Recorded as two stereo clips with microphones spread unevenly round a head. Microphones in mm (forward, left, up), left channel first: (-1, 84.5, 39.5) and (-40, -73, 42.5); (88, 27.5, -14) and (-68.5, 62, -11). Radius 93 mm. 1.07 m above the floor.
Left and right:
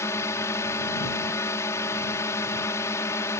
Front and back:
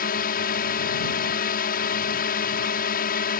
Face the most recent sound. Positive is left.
turn(degrees=5)